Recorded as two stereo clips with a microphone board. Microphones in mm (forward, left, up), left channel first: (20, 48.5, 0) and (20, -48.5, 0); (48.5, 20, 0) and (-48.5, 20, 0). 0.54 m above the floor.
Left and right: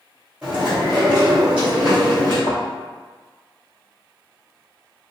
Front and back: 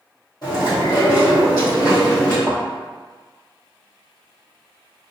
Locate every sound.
0.4 s chewing: 15° right, 1.7 m
2.5 s a thud: 85° left, 0.7 m